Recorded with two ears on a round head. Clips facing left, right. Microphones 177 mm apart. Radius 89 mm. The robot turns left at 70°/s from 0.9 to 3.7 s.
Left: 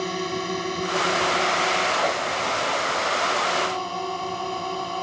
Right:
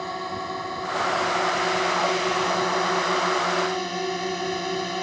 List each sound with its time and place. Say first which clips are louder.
0.0 s a drone: left 4 dB; 35° left; by 5.0 s 160° right